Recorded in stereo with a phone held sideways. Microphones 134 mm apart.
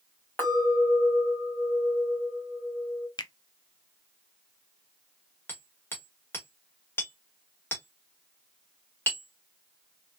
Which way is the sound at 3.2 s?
35° left (ahead or behind).